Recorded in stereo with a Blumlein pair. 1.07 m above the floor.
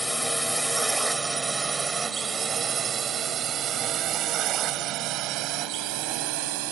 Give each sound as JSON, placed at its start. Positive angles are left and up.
{"t": 0.0, "sound": "a drone", "azimuth_deg": 0}